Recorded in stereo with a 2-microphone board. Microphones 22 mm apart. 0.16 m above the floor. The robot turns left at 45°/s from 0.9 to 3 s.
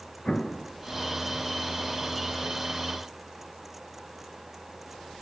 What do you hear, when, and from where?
0.2 s an explosion: 45° left (ahead or behind), 1.4 m